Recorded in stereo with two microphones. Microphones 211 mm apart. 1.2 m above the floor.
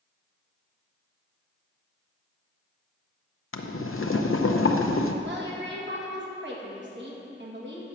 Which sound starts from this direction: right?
A woman speaking, at 5.2 s.